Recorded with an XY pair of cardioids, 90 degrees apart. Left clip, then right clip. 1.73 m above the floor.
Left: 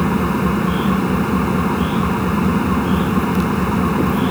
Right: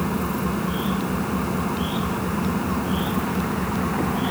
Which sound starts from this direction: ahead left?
An engine running, at 0.0 s.